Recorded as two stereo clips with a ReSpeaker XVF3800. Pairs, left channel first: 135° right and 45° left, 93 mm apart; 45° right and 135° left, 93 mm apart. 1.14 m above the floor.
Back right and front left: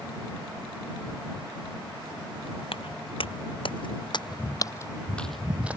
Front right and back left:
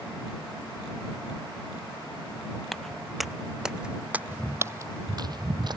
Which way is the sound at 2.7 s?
130° right.